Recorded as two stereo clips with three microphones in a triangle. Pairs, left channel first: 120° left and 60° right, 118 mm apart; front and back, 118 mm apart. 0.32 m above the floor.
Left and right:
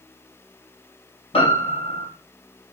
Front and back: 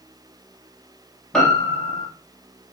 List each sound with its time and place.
1.3 s a piano: 85° left, 4 m